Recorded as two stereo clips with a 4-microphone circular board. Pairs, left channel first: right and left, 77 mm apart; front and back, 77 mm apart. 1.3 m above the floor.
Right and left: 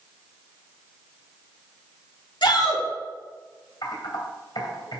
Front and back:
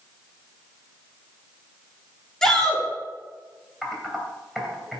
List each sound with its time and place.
2.4 s a shout: 85° right, 2.5 m
3.8 s typing on a keyboard: 90° right, 2.5 m